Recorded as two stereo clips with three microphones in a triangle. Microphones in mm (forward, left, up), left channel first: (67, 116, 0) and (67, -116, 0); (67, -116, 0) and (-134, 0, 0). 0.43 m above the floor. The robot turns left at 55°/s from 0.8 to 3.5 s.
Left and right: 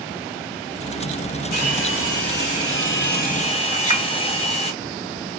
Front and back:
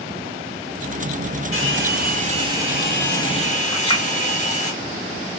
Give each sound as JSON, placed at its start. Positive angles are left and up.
{"t": 1.5, "sound": "a hair dryer", "azimuth_deg": 135, "distance_m": 1.9}
{"t": 3.7, "sound": "a clink", "azimuth_deg": 35, "distance_m": 1.9}